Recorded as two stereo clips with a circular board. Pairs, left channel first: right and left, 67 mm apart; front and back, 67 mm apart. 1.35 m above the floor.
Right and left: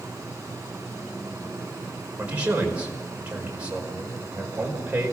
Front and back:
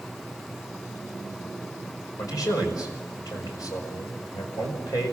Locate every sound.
2.2 s a man speaking: 20° left, 5 m